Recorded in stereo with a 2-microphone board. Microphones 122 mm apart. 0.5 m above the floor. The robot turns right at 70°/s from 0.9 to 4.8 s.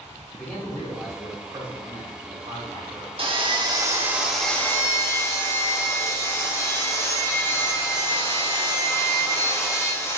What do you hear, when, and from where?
0.3 s a man speaking: 170° left, 1.9 m; by 3.1 s 35° right, 1.9 m
3.2 s sawing: 85° right, 0.7 m; by 10.2 s 30° left, 0.7 m